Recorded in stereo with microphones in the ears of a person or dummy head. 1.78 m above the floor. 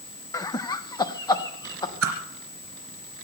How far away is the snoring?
I don't hear snoring.